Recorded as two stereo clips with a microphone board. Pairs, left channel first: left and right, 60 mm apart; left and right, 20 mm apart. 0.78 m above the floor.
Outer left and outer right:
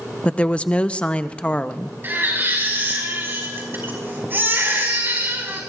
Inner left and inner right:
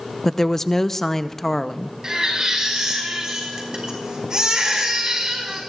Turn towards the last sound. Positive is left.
turn(degrees=-40)  # may be behind; listen again after turning